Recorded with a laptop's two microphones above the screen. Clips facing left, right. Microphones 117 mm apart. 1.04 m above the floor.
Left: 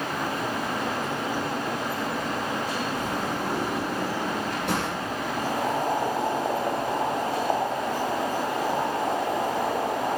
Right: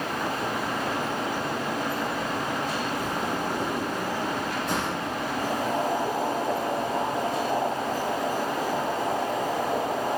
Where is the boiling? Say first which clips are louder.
Left 1 dB; 85° left, 5 m.